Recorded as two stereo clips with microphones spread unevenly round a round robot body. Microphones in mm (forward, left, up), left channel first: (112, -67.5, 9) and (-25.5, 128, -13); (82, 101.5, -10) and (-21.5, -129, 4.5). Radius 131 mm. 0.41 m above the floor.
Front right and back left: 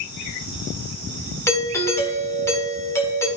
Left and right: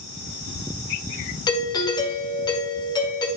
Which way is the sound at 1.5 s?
20° left.